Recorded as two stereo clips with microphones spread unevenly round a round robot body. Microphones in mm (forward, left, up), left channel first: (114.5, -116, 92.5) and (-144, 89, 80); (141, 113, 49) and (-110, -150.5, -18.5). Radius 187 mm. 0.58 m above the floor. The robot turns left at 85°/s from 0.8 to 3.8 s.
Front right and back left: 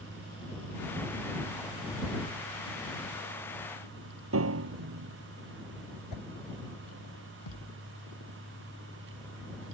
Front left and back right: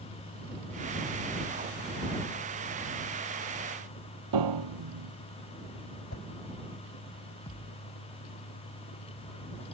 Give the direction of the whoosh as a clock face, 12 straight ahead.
12 o'clock.